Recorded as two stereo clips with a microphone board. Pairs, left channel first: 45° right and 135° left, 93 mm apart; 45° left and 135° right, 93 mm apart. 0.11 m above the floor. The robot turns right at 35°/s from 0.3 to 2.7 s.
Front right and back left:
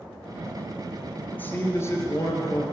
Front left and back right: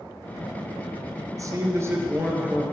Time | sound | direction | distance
1.3 | a man speaking | 110° right | 1.7 m